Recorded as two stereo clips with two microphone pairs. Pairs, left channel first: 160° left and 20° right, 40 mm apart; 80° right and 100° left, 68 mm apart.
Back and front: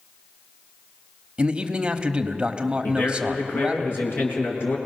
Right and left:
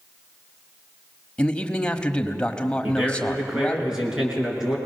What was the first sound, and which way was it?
A man speaking, 25° right.